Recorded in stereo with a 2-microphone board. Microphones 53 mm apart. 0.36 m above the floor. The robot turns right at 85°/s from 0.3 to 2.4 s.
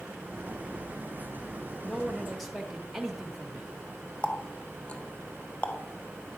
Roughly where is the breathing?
No breathing in this recording.